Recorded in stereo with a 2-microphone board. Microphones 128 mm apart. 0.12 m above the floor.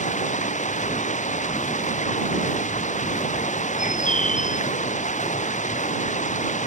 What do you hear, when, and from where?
0.0 s running water: 70° left (ahead or behind)
3.8 s a bird: 75° left (ahead or behind)